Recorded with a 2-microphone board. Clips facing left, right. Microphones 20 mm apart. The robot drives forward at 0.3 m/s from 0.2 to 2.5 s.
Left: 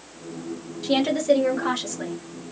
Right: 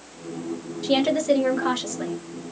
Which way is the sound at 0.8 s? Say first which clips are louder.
Even; 5° right (ahead or behind).